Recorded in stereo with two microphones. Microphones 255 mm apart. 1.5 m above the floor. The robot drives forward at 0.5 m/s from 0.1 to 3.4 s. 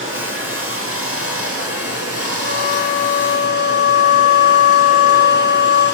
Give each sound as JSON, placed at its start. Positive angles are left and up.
{"t": 0.0, "sound": "running water", "side_deg": -55, "distance_m": 2.0}
{"t": 2.4, "sound": "a flute", "side_deg": 75, "distance_m": 8.5}